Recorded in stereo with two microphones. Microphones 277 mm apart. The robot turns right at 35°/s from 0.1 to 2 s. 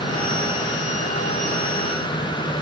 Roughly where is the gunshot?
No gunshot in this recording.